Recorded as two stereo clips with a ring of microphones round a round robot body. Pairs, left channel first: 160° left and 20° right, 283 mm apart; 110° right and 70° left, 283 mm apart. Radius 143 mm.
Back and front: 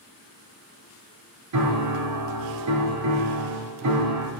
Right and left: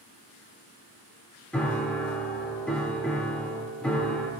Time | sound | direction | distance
1.5 | a piano | 25° right | 1.3 m